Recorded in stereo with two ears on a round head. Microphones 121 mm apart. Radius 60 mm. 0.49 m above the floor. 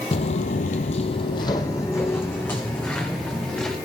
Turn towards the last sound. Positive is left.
turn(degrees=10)  # may be behind; listen again after turning